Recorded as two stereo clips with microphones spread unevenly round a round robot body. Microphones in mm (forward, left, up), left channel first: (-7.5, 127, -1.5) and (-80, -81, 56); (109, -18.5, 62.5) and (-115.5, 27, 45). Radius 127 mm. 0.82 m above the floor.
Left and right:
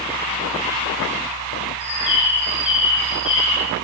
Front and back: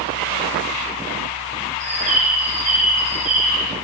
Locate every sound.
1.8 s a bird: 110° left, 3.5 m